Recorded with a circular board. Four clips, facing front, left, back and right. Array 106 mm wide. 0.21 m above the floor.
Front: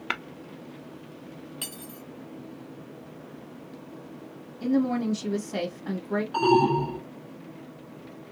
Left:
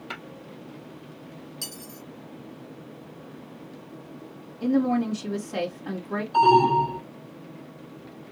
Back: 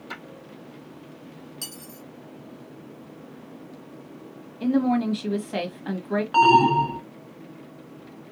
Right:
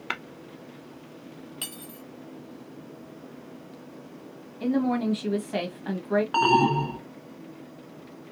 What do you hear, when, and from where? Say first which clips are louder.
0.1 s tapping: right 5 dB, front 7 dB; 35° right, 0.8 m
1.6 s cutlery clinking: even, front 1 dB; 60° right, 0.6 m
4.6 s a woman speaking: left 2 dB, back 3 dB; 150° right, 1.4 m
6.3 s an alarm: left 6 dB, back 5 dB; 120° right, 1.4 m